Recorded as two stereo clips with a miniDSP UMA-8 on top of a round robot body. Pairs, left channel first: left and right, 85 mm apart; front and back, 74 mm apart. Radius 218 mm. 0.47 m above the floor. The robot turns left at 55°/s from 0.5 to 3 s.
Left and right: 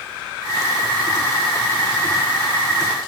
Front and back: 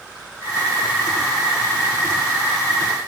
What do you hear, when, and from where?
Only background noise.